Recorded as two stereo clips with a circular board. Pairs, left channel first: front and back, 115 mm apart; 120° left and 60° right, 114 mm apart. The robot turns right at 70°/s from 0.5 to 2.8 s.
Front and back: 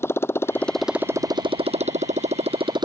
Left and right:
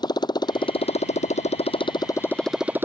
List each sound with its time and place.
0.0 s a motorcycle: 70° left; by 2.8 s 130° right